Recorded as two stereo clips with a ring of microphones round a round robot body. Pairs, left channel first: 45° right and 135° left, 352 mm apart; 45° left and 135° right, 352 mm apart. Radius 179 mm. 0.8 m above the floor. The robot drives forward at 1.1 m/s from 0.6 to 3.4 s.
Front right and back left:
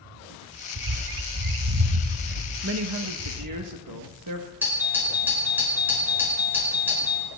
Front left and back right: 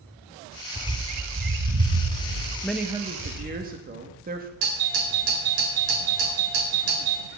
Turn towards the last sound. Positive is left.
turn(degrees=-140)